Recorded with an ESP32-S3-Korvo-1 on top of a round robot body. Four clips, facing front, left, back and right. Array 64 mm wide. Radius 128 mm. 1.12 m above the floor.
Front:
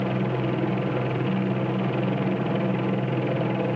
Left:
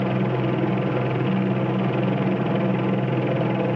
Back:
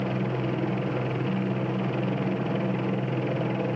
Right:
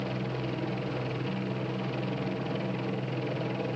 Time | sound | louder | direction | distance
0.0 | a helicopter | left 11 dB, front 3 dB | 75° left | ?